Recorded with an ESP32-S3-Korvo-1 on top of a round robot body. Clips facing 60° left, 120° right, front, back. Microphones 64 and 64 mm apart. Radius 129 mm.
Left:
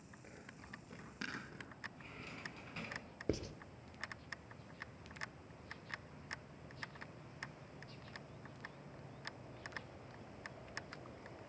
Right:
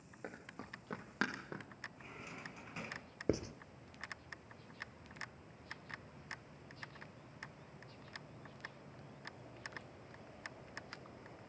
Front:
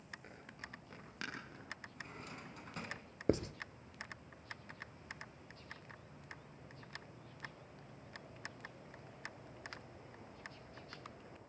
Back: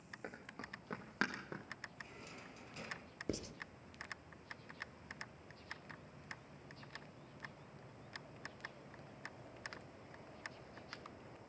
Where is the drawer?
40° right, 3.5 m.